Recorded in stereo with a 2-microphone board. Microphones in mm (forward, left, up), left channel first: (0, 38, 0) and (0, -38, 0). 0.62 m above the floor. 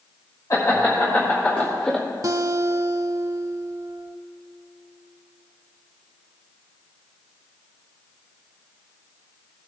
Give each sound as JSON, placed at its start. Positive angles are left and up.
{"t": 0.5, "sound": "laughter", "side_deg": 50, "distance_m": 2.5}
{"t": 2.2, "sound": "a guitar", "side_deg": -50, "distance_m": 0.6}